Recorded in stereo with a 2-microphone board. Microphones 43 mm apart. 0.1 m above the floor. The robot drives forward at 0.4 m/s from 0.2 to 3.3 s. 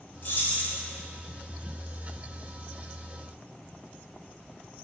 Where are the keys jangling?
45° left (ahead or behind), 1.7 m; by 0.8 s 40° left (ahead or behind), 1.8 m.